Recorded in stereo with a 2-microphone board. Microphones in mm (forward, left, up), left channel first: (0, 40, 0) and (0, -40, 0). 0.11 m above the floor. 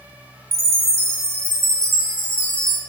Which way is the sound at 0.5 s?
35° right (ahead or behind).